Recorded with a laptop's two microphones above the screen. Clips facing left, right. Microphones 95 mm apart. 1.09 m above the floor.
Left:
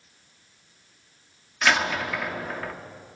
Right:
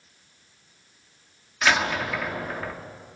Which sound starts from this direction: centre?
A door slam, at 1.6 s.